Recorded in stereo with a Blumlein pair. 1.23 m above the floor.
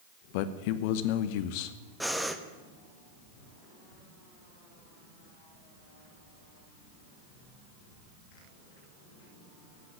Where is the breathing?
Straight ahead, 1.1 m.